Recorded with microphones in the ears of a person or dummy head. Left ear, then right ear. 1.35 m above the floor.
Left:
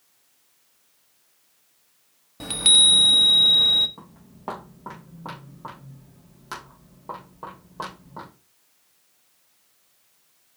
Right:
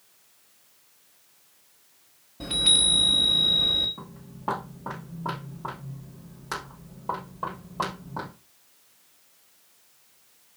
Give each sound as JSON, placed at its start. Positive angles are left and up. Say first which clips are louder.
{"t": 2.4, "sound": "a chime", "louder": "left 5 dB", "side_deg": 60, "distance_m": 1.1}
{"t": 4.0, "sound": "footsteps", "louder": "right 3 dB", "side_deg": 25, "distance_m": 4.5}